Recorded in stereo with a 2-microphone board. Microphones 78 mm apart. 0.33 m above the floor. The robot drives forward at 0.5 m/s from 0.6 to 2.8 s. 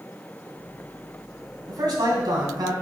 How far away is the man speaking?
About 2.5 m.